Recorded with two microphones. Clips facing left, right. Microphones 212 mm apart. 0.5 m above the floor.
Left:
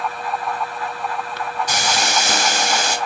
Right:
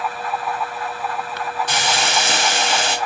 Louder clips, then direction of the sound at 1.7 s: Left 1 dB; 40° left (ahead or behind).